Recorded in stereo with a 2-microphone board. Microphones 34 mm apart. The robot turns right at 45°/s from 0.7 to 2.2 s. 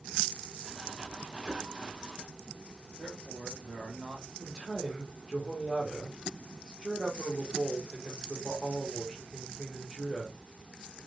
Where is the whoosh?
45° left (ahead or behind), 1.5 m; by 1.7 s 35° left (ahead or behind), 1.5 m.